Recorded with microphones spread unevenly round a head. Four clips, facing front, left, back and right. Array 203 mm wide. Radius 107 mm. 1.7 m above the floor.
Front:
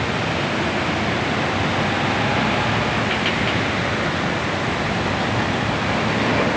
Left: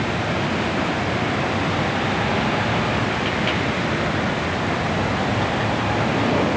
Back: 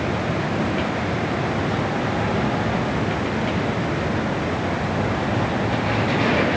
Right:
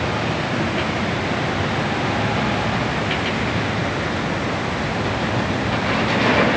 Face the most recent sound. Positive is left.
No sound to turn to.